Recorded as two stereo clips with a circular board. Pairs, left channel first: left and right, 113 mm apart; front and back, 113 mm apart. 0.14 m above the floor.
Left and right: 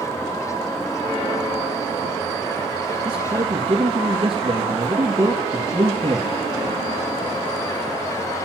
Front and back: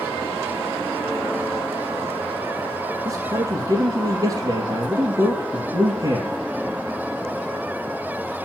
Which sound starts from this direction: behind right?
A man speaking, at 3.0 s.